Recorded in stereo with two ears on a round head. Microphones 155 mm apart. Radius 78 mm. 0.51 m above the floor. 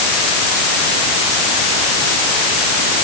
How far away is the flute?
I don't hear a flute.